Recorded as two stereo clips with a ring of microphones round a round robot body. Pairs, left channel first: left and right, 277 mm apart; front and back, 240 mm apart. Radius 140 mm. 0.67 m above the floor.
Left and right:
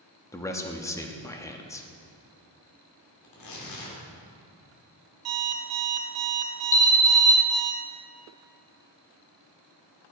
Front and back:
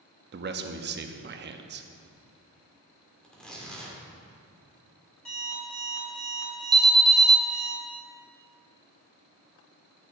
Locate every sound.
0.3 s a man speaking: 165° left, 0.8 m
3.2 s tearing paper: 85° left, 2.5 m
5.2 s an alarm clock: 85° right, 1.5 m
6.7 s an alarm: 115° left, 1.0 m